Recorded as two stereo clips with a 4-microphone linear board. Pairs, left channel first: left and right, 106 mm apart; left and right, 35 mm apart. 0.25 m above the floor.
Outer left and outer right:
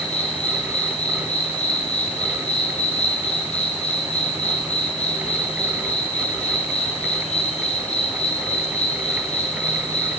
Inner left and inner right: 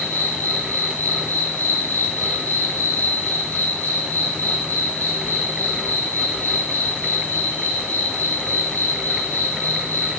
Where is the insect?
80° left, 2 m.